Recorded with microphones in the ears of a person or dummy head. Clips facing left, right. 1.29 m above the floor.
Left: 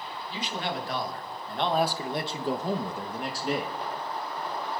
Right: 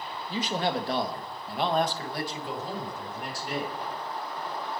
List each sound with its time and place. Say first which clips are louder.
0.3 s a man speaking: right 5 dB; 40° right (ahead or behind), 1.6 m; by 3.8 s 70° left (ahead or behind), 1.7 m